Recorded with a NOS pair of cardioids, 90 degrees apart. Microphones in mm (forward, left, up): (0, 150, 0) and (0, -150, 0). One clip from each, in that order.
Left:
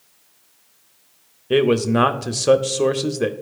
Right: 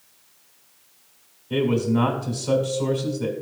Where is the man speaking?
70° left, 0.7 m.